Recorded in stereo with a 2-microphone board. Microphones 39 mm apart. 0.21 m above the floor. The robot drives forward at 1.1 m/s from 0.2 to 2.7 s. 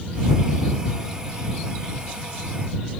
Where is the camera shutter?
No camera shutter in this recording.